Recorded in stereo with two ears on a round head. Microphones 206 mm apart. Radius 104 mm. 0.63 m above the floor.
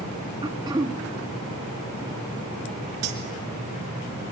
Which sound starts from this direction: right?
Cutlery clinking, at 3.0 s.